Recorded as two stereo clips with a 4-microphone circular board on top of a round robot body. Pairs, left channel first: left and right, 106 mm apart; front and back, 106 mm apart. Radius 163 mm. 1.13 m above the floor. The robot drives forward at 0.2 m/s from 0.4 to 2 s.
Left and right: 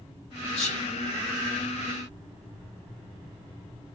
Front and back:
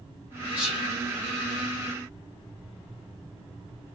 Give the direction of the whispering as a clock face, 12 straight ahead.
8 o'clock.